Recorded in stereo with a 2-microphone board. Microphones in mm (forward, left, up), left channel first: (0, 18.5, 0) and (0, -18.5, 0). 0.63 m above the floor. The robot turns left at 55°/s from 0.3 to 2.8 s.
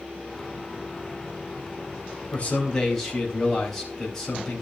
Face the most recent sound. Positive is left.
turn(degrees=10)  # may be behind; listen again after turning